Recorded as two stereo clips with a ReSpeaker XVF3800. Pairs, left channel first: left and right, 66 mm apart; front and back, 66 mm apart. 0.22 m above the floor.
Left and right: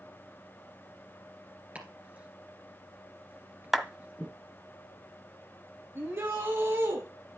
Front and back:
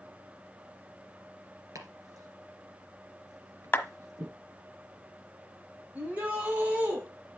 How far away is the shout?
About 1.5 m.